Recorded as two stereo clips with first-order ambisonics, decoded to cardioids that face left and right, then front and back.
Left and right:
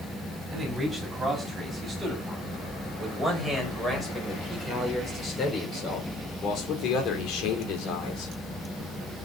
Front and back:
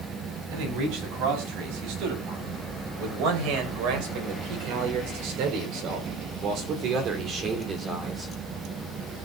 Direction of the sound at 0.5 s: 175° right.